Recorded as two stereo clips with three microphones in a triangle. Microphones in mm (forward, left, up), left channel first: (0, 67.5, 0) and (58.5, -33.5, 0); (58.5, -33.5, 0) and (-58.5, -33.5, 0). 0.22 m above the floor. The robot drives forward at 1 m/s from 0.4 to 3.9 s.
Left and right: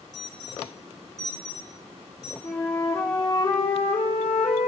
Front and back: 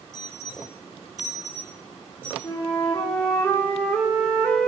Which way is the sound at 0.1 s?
50° right.